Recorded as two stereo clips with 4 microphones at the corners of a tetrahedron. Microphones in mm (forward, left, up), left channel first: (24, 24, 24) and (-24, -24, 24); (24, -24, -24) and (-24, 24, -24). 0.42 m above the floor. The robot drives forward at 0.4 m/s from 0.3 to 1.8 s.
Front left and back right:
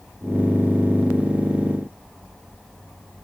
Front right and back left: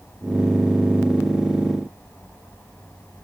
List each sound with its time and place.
Only background noise.